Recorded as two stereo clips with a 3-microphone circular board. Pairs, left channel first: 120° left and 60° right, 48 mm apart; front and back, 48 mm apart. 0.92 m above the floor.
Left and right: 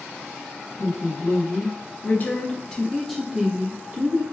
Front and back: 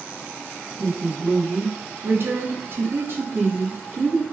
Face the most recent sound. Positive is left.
turn(degrees=-110)